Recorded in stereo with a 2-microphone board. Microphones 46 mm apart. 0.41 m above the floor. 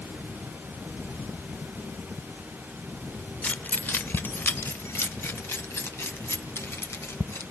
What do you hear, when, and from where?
3.4 s keys jangling: 35° left (ahead or behind), 0.7 m; by 7.4 s 75° left (ahead or behind), 3 m